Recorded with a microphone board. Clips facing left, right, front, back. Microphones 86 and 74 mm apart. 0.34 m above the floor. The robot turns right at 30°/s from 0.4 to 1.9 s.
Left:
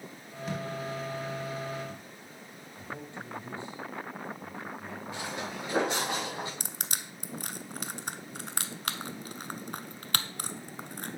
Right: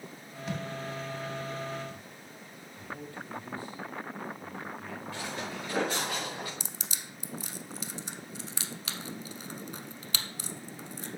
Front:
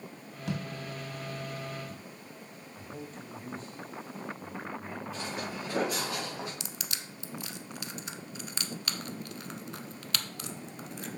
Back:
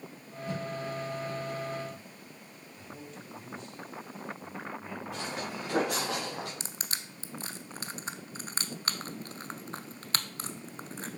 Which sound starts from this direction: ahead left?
A man speaking, at 2.7 s.